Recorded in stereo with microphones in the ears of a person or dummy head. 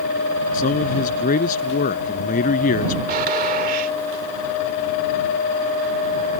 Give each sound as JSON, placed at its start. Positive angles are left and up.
{"t": 0.5, "sound": "a man speaking", "side_deg": 40}
{"t": 3.1, "sound": "a gunshot", "side_deg": -50}